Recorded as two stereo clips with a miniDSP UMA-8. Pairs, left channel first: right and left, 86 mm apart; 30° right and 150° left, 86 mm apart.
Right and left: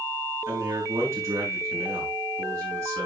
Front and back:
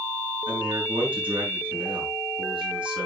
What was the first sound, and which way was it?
A man speaking, 145° left.